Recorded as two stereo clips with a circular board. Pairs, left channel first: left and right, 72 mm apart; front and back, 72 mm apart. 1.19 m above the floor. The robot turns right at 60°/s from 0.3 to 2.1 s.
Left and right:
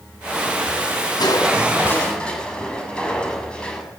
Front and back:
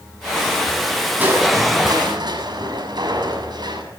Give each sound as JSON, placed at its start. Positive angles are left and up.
{"t": 1.2, "sound": "crushing", "azimuth_deg": 110, "distance_m": 7.0}